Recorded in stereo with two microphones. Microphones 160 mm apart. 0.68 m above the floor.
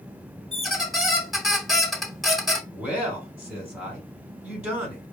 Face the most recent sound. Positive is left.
turn(degrees=-5)  # may be behind; listen again after turning